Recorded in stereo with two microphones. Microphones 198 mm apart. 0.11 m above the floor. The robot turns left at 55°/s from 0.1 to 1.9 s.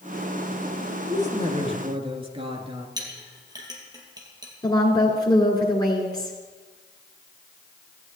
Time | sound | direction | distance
1.1 | a woman speaking | 90° right | 1.7 m
3.0 | a clink | 20° right (ahead or behind) | 2.5 m
4.6 | a woman speaking | 20° left (ahead or behind) | 1.8 m